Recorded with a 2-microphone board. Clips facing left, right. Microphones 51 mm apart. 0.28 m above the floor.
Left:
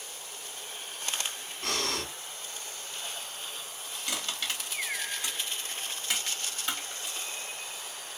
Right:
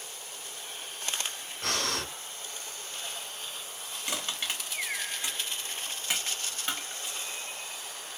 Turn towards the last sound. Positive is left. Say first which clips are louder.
# even
turn(degrees=-20)  # may be behind; listen again after turning